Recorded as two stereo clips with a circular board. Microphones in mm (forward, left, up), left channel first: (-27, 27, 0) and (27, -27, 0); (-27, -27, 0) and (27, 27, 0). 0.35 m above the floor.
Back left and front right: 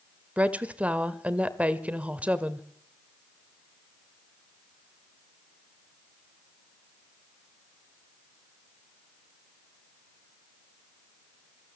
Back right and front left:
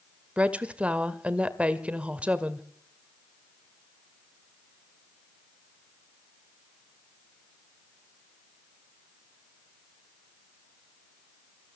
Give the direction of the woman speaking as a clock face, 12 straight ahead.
12 o'clock.